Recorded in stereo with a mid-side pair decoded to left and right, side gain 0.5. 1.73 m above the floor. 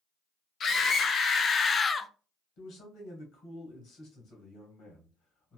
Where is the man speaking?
70° left, 1.7 m.